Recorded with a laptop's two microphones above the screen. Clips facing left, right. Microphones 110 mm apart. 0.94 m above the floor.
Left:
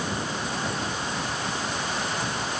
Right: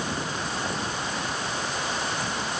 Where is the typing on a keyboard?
No typing on a keyboard in this recording.